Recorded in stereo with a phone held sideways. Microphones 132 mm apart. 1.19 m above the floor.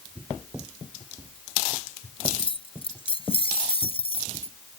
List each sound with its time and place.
2.2 s keys jangling: 40° left (ahead or behind); by 4.5 s 45° left (ahead or behind)